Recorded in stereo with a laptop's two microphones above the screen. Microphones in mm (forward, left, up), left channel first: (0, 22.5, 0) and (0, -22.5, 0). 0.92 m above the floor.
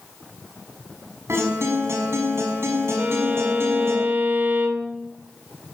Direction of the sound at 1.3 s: 85° right.